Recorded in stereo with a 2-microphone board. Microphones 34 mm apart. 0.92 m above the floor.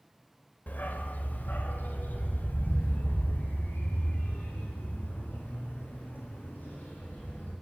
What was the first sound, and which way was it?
A dog barking, 65° left (ahead or behind).